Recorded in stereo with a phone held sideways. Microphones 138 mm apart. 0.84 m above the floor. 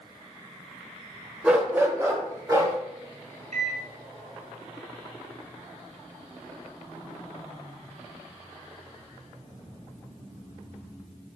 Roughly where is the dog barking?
Centre.